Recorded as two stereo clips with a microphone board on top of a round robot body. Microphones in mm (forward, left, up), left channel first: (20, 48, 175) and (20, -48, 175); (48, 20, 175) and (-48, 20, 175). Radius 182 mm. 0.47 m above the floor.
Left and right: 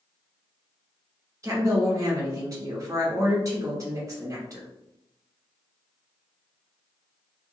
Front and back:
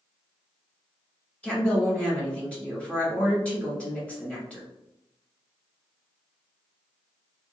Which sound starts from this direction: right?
A woman speaking, at 1.4 s.